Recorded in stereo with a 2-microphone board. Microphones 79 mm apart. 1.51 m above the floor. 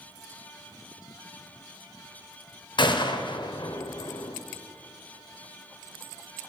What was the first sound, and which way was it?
A gunshot, 70° left (ahead or behind).